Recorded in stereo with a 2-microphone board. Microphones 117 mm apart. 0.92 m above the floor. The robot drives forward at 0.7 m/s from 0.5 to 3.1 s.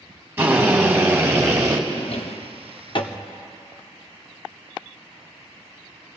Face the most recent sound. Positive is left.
turn(degrees=45)  # may be behind; listen again after turning